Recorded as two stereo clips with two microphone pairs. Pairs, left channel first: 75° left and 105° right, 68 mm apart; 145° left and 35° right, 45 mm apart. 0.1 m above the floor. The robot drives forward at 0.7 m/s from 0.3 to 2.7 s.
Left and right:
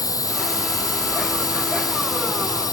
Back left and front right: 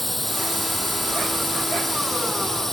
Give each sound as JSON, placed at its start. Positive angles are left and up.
{"t": 0.0, "sound": "a drone", "azimuth_deg": 60}